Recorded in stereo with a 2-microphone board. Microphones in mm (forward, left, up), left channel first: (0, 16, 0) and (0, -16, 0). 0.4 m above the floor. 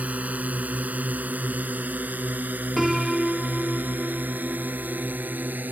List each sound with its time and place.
0.0 s a drone: 50° right (ahead or behind); by 5.7 s 80° right
2.8 s a piano: 5° right (ahead or behind)